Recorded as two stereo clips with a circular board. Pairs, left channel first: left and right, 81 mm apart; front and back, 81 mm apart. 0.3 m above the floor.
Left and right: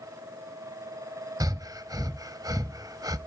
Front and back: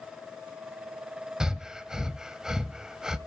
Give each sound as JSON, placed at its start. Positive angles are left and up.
{"t": 1.4, "sound": "breathing", "azimuth_deg": -100, "distance_m": 0.7}